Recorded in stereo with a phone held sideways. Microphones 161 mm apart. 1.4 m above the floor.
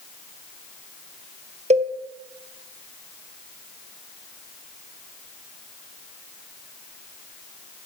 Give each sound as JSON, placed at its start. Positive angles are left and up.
{"t": 1.7, "sound": "a cowbell", "side_deg": -40, "distance_m": 0.6}